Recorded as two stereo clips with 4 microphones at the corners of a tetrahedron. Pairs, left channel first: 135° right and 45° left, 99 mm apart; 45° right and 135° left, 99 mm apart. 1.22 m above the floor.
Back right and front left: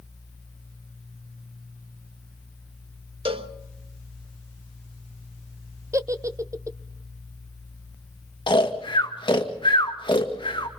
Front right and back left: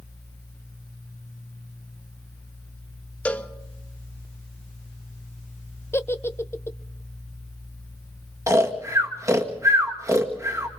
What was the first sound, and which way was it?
A cowbell, 30° left.